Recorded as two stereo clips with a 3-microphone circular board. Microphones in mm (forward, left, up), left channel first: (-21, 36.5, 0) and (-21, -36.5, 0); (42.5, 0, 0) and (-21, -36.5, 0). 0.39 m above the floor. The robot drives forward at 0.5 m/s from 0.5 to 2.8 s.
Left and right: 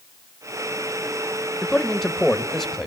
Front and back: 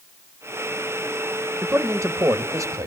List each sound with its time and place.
1.6 s a man speaking: 170° left, 1.2 m; by 2.9 s 175° left, 1.7 m